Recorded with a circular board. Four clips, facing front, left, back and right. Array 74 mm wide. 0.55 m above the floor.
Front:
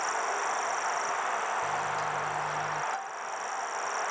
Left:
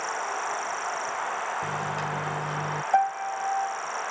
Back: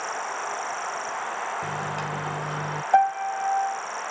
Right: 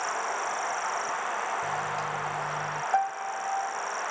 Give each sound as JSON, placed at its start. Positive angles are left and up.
{"t": 1.6, "sound": "a microwave", "azimuth_deg": 145}
{"t": 2.9, "sound": "a piano", "azimuth_deg": 165}